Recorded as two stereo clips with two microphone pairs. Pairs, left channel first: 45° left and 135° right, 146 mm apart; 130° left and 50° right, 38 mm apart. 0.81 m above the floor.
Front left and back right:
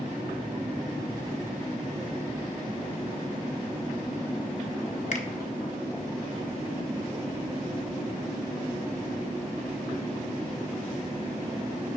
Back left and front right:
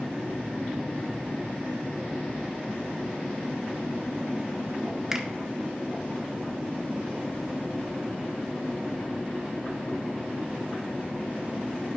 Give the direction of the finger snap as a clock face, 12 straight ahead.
11 o'clock.